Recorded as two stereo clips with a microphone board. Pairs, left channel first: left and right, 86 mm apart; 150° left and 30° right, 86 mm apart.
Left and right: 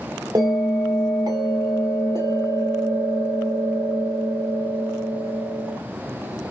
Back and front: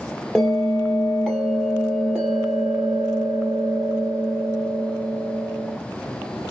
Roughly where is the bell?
Behind right.